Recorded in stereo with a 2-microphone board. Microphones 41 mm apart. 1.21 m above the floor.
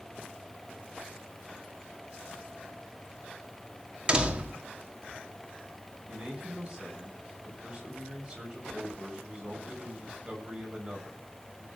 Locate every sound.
4.1 s a door slam: 25° right (ahead or behind), 2.0 m
6.1 s a man speaking: 20° right (ahead or behind), 8 m